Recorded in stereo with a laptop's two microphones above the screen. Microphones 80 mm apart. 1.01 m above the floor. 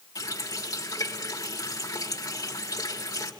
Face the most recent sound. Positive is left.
turn(degrees=50)  # may be behind; listen again after turning